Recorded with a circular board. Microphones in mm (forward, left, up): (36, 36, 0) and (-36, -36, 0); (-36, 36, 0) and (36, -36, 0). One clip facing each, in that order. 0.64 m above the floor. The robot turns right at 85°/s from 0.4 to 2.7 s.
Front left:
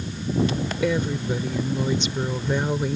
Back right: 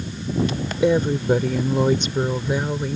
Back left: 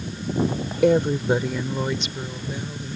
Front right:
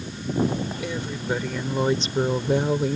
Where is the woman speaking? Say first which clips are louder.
Back right 7 dB, back left 11 dB; 160° left; by 3.0 s 40° right.